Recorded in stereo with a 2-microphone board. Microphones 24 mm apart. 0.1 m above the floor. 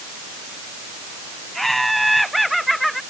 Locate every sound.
1.6 s laughter: 5° left (ahead or behind); by 3.0 s centre (ahead or behind)